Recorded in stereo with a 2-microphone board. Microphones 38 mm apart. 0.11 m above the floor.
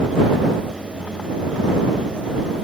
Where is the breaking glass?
I don't hear breaking glass.